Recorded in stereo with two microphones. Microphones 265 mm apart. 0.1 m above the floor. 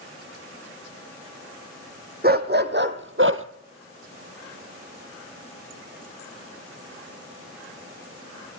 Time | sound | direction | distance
2.2 | a dog barking | 35° right (ahead or behind) | 2 m